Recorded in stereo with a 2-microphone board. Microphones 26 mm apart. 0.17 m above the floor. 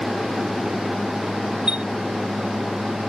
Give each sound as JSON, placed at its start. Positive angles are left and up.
{"t": 1.7, "sound": "a chime", "side_deg": -45}